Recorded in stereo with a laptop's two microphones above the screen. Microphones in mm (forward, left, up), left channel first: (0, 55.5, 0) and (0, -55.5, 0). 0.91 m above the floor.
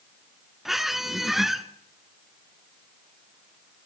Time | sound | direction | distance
0.7 | a squeak | centre (ahead or behind) | 0.9 m